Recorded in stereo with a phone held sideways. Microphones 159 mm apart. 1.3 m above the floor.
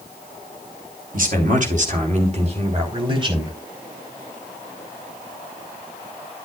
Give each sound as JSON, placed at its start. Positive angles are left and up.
{"t": 1.1, "sound": "a man speaking", "side_deg": -60, "distance_m": 4.5}